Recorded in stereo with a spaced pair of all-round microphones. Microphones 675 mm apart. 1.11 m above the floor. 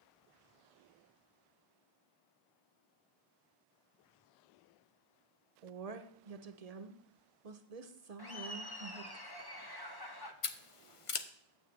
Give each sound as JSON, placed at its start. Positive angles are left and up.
{"t": 5.6, "sound": "a woman speaking", "side_deg": -65, "distance_m": 0.9}
{"t": 8.2, "sound": "laughter", "side_deg": 35, "distance_m": 1.1}
{"t": 10.4, "sound": "scissors", "side_deg": 50, "distance_m": 0.7}